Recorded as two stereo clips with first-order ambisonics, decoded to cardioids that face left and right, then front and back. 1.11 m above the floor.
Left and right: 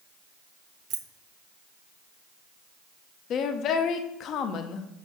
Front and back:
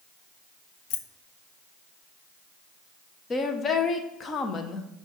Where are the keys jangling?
35° right, 0.6 m.